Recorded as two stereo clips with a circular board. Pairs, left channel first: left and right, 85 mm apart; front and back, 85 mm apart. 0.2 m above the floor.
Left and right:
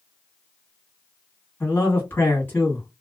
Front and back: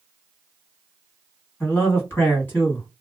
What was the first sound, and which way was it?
A man speaking, 45° left.